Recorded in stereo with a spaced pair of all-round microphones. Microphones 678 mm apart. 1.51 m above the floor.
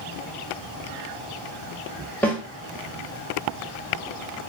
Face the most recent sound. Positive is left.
turn(degrees=5)  # may be behind; listen again after turning